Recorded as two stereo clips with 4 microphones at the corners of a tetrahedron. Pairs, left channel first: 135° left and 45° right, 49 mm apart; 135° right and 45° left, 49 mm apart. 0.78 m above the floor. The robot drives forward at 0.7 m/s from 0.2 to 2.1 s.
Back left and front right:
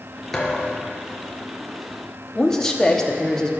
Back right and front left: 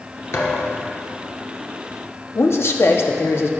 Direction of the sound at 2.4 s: 145° right.